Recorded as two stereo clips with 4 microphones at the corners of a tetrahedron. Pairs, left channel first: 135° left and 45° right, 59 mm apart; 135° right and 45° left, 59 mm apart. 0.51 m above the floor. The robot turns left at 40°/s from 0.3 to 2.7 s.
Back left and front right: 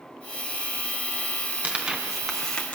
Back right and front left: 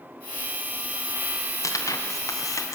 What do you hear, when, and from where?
1.6 s tearing paper: 110° right, 3 m; by 2.8 s 155° right, 3 m